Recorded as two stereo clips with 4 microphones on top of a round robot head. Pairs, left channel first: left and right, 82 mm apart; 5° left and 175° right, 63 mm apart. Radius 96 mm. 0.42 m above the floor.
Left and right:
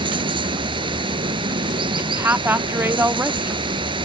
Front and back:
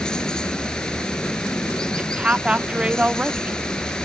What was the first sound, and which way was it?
Running water, 75° right.